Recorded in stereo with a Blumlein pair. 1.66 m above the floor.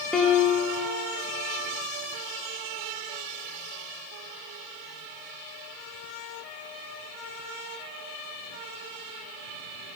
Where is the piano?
10° left, 0.7 m.